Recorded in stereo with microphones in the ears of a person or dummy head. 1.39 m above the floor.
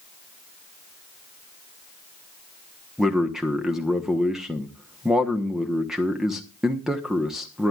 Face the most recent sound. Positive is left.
turn(degrees=0)  # may be behind; listen again after turning